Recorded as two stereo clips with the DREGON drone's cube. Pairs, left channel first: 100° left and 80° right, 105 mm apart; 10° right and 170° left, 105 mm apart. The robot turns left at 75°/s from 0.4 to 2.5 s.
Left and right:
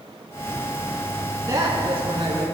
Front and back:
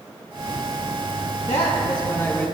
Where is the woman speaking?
20° right, 4 m; by 2.5 s 90° right, 4 m.